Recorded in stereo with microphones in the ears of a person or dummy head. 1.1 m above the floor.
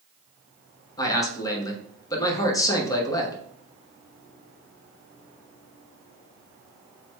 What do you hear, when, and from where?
1.0 s a man speaking: 20° left (ahead or behind), 0.9 m